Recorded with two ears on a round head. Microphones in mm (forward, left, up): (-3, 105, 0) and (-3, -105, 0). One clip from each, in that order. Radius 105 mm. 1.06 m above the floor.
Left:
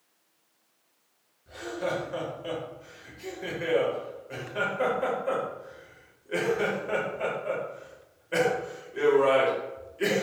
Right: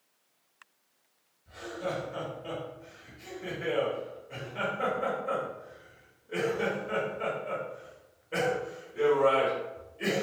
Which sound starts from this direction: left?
Laughter, at 1.5 s.